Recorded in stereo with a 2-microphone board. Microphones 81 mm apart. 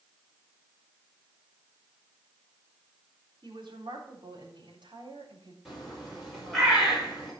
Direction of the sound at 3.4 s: 75° right (ahead or behind).